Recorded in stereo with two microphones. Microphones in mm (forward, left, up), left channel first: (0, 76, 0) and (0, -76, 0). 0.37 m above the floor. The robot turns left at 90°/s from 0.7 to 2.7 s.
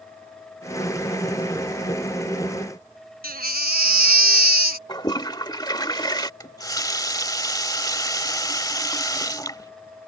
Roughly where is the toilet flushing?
Left.